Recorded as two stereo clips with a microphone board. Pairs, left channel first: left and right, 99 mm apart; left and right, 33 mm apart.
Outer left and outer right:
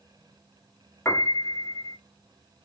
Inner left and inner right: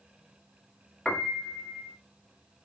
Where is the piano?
25° left (ahead or behind), 1.2 m.